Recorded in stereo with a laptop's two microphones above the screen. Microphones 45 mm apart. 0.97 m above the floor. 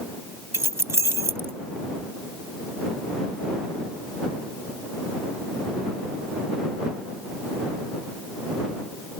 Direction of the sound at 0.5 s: 85° right.